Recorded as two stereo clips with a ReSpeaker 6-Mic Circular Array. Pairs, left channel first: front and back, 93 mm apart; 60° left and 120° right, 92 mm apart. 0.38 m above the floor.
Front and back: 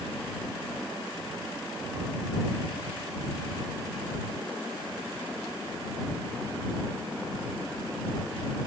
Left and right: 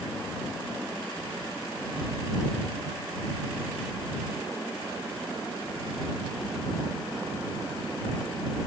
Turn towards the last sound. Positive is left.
No sound to turn to.